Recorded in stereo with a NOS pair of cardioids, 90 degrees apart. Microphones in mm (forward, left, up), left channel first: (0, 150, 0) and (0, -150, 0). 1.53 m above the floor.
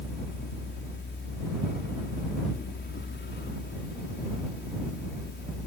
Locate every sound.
0.0 s a fan: 35° left